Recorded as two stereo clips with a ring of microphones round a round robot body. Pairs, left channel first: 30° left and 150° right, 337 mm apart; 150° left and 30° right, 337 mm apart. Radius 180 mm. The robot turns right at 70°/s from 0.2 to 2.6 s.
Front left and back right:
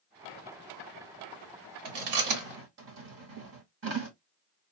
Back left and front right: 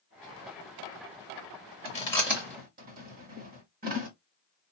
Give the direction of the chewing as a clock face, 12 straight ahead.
5 o'clock.